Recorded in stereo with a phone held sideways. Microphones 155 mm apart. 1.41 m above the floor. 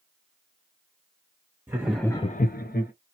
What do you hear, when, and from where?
1.7 s laughter: 20° right (ahead or behind), 0.9 m; by 2.9 s 75° left (ahead or behind), 1.1 m